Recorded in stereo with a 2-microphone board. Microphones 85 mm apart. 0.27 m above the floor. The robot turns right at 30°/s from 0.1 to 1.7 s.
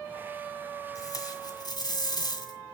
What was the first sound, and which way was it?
Tape being pulled, 45° left (ahead or behind).